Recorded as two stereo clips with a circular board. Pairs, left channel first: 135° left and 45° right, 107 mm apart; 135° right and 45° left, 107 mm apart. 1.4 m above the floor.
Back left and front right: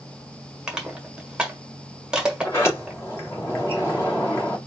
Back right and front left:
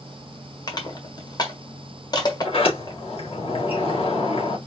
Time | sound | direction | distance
0.7 | crushing | 125° right | 1.4 m
2.4 | a sliding door | 160° right | 2.5 m